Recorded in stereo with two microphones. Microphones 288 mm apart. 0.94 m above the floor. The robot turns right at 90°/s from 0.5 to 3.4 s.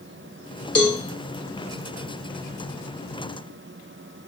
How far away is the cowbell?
About 1.5 m.